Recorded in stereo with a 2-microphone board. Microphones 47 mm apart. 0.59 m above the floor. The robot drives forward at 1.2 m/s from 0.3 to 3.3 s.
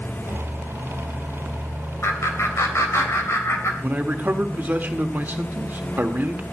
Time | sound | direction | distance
2.0 | laughter | 65° left (ahead or behind) | 3 m
3.8 | a man speaking | 40° right (ahead or behind) | 1.4 m